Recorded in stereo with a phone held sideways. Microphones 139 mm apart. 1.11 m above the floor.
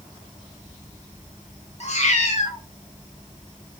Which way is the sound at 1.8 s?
55° left (ahead or behind).